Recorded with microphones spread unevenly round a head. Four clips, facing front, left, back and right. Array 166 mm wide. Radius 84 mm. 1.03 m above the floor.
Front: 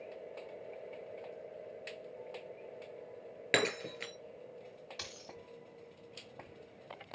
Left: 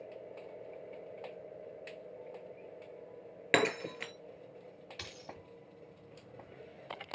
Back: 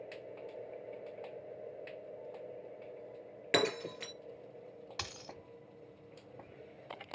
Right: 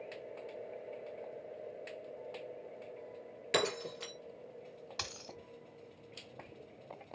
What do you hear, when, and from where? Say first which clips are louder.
3.5 s breaking glass: left 3 dB, back 1 dB; 50° left, 1.6 m
5.0 s a dropped coin: right 2 dB, back 3 dB; 160° right, 1.2 m